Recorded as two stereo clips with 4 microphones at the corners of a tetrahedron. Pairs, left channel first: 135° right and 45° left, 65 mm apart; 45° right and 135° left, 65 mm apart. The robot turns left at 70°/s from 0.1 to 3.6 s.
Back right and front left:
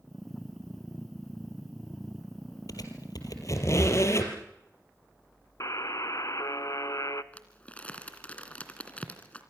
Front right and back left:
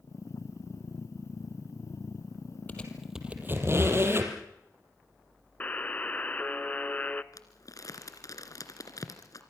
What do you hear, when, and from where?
2.7 s a squeak: 110° right, 3.5 m; by 4.3 s 175° right, 3.5 m
5.6 s a buzzer: 110° right, 0.8 m
7.3 s crumpling: 65° right, 2.5 m